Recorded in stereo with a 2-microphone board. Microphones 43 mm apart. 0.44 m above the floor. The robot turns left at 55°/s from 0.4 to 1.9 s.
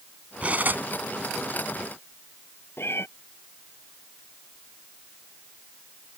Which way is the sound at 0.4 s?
30° right (ahead or behind).